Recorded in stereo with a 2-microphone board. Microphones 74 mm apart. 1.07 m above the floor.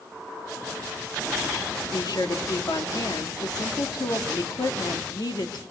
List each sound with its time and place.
1.9 s a woman speaking: 70° left (ahead or behind), 1.9 m